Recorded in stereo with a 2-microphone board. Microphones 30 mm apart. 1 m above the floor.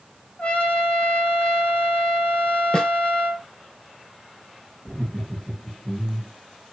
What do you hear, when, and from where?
0.4 s a trumpet: 40° left (ahead or behind), 1.5 m
2.7 s a snare drum: 30° left (ahead or behind), 0.7 m
4.8 s laughter: 25° left (ahead or behind), 2 m